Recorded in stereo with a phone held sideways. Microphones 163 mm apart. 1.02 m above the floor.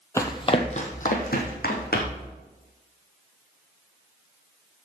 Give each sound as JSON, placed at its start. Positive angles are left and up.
{"t": 0.2, "sound": "running footsteps", "side_deg": 15, "distance_m": 1.1}